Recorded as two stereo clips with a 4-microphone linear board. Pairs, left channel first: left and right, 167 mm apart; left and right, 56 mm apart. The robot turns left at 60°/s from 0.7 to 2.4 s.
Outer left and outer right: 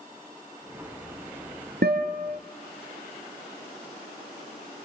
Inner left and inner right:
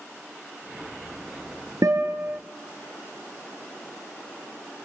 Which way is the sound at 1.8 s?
90° right.